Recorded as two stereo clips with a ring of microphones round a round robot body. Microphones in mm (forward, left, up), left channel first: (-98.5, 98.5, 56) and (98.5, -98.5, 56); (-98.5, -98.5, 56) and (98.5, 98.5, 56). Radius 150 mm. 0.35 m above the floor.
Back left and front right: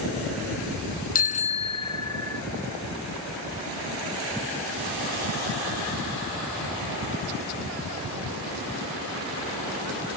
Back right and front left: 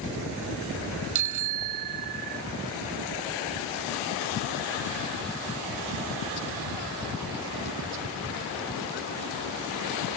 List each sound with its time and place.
1.1 s a bicycle bell: 70° left; by 2.4 s 55° left